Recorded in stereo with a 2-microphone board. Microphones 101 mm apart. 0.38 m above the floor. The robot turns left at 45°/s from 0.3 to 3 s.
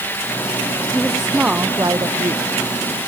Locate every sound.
0.9 s a woman speaking: 10° left; by 3.0 s 85° right